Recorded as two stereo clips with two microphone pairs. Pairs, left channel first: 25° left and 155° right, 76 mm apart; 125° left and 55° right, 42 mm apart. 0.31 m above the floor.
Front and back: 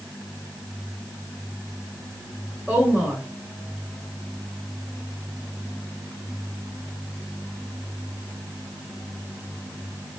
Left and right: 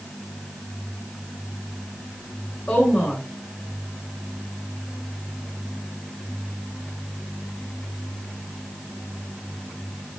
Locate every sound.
2.7 s a woman speaking: 135° left, 1.0 m